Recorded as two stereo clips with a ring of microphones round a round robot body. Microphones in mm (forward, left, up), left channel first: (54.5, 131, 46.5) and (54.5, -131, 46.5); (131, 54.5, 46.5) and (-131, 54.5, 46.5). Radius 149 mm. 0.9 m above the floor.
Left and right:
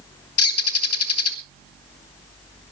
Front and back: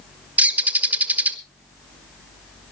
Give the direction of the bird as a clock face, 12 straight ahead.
9 o'clock.